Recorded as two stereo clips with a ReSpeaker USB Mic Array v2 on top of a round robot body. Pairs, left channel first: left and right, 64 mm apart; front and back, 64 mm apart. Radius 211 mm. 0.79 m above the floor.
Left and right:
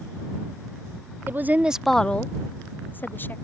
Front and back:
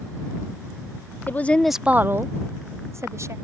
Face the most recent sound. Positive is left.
turn(degrees=145)